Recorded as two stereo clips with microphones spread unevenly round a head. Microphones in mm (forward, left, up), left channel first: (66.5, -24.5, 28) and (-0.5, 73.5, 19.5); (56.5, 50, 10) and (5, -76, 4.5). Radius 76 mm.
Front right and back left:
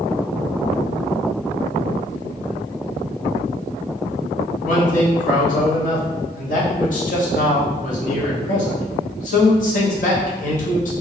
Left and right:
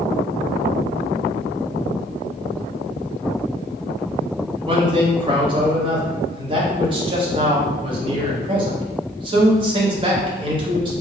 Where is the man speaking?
60° right, 1.1 m.